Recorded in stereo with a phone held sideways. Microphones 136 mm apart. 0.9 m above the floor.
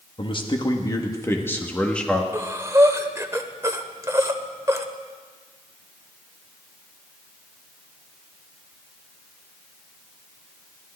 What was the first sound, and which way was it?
A man speaking, 40° left (ahead or behind).